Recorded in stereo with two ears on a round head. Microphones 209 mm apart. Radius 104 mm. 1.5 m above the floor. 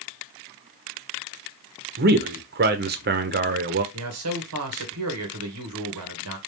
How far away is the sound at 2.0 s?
About 0.9 m.